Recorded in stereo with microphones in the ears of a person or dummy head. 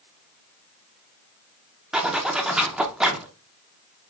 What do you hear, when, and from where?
1.9 s a zipper: 5° right (ahead or behind), 0.6 m